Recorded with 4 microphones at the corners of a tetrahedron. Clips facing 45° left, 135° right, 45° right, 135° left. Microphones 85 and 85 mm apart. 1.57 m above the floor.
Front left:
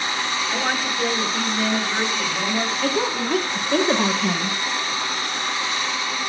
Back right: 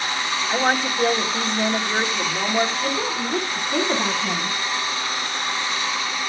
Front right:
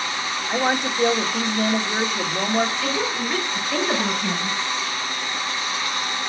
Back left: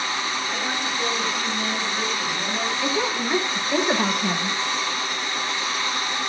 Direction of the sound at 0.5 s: 70° right.